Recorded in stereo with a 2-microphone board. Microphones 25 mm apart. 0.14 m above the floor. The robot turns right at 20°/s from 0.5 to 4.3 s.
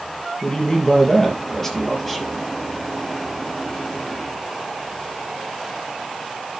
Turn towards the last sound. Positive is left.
turn(degrees=-140)